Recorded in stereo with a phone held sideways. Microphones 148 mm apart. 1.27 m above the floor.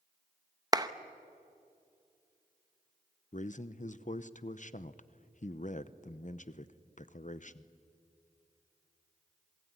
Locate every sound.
0.7 s a clap: 25° right (ahead or behind), 0.8 m
3.3 s a man speaking: 55° left (ahead or behind), 0.8 m